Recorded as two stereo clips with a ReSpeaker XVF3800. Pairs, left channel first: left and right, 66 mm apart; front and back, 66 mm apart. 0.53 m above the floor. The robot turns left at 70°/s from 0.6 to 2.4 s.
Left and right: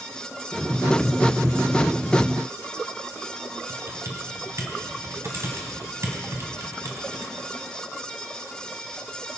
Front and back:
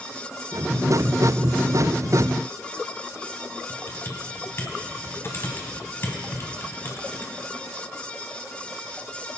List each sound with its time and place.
3.7 s typing on a keyboard: 50° right, 1.6 m